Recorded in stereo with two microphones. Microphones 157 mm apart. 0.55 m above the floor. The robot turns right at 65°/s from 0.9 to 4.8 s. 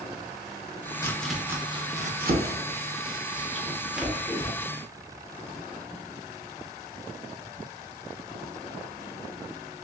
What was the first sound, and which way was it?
Chopping, 15° left (ahead or behind).